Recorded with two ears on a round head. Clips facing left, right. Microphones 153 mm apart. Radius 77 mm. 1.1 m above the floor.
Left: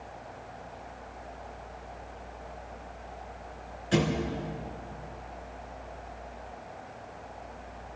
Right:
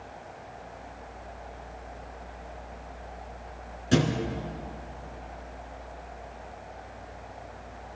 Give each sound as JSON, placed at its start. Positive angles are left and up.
{"t": 3.9, "sound": "a thud", "side_deg": -55, "distance_m": 3.5}